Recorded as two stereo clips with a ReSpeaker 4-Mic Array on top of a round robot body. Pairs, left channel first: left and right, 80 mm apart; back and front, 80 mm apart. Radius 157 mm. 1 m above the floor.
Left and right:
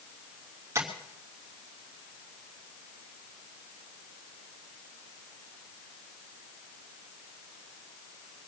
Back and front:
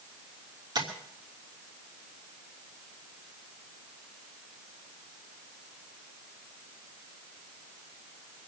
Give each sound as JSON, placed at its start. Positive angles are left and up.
{"t": 0.8, "sound": "tapping", "azimuth_deg": -35, "distance_m": 3.0}